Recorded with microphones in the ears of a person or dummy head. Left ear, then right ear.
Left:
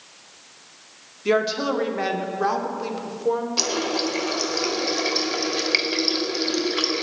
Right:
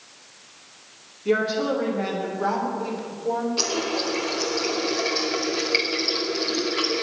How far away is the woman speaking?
About 2.5 m.